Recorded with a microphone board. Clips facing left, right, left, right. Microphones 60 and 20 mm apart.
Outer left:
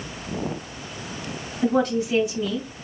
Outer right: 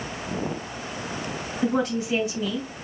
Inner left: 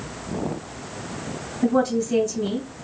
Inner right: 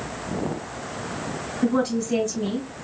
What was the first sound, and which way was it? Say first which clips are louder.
A woman speaking: outer left 3 dB, inner left 2 dB; 5° right (ahead or behind).